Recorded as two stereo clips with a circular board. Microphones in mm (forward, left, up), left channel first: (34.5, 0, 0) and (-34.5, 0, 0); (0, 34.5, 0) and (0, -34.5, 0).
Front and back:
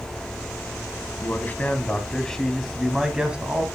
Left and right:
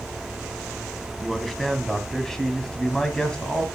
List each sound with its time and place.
1.2 s a man speaking: straight ahead, 1.6 m; by 3.7 s 150° left, 1.5 m